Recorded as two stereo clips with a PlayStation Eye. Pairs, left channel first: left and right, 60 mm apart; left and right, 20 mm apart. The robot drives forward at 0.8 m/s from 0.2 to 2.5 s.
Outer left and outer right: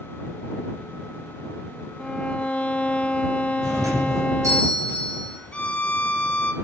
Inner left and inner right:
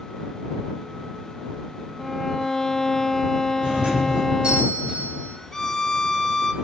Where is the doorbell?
70° right (ahead or behind), 5.5 m.